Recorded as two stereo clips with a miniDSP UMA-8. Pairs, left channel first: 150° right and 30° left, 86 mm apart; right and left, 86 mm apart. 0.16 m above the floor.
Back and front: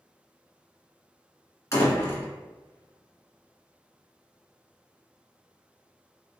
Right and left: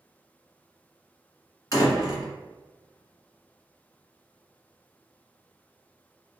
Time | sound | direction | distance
1.7 | a door slam | 115° right | 1.3 m